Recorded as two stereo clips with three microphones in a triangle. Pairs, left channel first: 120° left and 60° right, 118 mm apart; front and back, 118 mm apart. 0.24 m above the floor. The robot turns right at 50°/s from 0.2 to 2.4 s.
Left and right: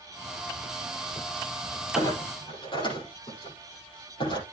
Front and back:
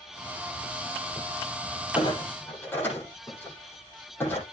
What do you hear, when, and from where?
1.9 s a clunk: 50° left, 9.5 m; by 4.4 s 75° left, 9.5 m